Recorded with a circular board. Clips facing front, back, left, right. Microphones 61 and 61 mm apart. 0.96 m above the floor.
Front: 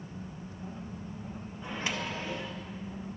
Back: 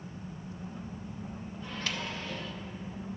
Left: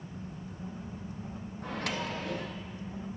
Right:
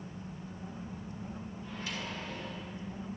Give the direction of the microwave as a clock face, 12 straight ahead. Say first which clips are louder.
Front 3 dB, left 7 dB; 10 o'clock.